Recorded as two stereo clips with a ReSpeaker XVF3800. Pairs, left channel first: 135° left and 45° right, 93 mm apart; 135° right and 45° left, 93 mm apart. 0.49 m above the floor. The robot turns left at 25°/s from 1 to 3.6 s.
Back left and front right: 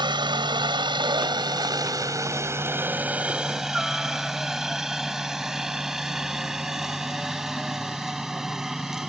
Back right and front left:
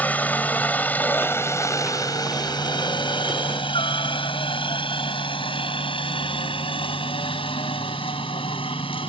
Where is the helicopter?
65° right; by 9.1 s 130° right.